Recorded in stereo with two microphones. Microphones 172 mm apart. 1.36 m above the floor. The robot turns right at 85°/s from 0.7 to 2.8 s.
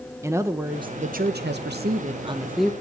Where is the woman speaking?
165° right, 0.9 m; by 2.7 s 5° left, 0.9 m.